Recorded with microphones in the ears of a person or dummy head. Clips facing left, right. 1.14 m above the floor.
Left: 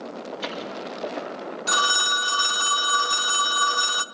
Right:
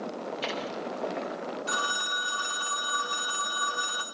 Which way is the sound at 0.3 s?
Centre (ahead or behind).